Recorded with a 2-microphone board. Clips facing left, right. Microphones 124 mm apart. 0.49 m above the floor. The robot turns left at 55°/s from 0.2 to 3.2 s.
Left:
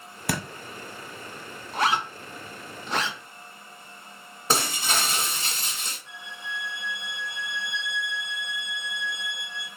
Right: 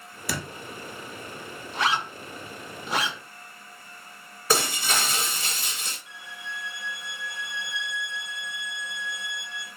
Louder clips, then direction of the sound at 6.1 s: Left 2 dB; 15° right (ahead or behind).